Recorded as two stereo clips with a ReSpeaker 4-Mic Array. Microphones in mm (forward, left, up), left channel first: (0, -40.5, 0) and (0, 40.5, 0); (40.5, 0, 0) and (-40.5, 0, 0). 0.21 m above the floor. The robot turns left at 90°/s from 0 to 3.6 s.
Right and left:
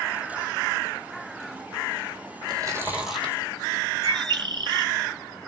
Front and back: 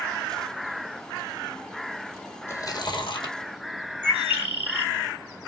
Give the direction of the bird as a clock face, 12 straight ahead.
8 o'clock.